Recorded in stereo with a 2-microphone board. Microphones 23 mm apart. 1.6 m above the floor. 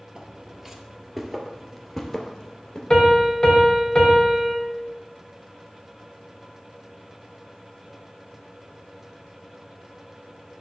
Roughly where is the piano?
Left.